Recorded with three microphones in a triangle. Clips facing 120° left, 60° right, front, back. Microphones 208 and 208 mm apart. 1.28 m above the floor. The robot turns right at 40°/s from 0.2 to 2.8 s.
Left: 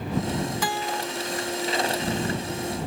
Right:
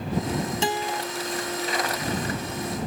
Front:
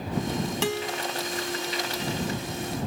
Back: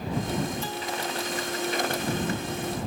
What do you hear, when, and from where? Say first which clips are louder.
0.6 s a guitar: right 2 dB, front 4 dB; straight ahead; by 1.0 s 15° left